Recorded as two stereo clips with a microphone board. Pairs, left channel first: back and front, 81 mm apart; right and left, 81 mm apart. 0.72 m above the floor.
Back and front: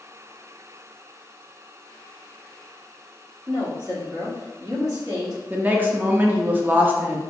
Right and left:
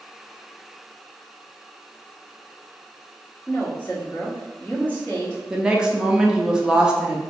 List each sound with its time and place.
3.5 s a woman speaking: 25° right, 1.2 m
5.5 s a woman speaking: 20° left, 0.5 m